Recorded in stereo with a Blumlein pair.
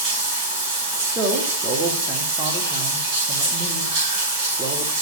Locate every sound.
0.0 s running water: 45° right, 4.5 m
1.1 s a man speaking: 15° right, 1.8 m